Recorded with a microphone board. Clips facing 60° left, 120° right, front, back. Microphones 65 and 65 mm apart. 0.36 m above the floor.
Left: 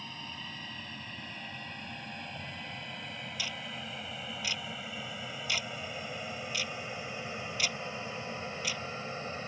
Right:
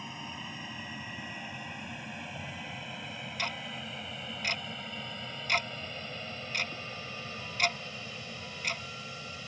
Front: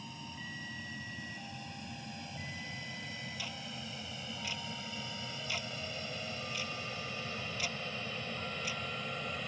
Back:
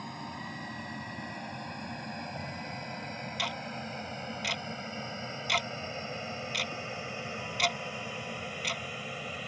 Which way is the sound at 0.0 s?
165° left.